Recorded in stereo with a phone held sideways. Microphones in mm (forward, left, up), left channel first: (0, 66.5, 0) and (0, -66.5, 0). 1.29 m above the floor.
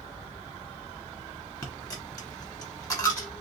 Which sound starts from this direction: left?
A dropped coin, at 1.6 s.